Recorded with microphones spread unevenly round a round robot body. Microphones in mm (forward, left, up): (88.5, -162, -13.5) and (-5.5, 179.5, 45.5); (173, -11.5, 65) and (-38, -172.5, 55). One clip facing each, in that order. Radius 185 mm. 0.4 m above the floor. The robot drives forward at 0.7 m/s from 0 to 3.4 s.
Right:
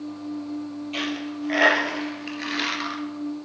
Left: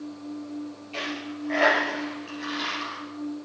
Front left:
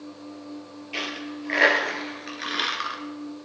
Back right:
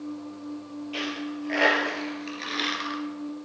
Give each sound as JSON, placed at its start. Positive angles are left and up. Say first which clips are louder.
{"t": 0.9, "sound": "a dropped coin", "louder": "right 4 dB, back right 1 dB", "azimuth_deg": -25, "distance_m": 3.0}